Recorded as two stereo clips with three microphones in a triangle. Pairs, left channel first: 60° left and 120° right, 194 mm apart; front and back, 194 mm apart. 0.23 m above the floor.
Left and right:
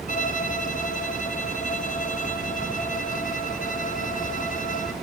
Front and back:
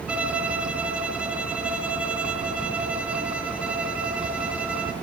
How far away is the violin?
About 2.5 m.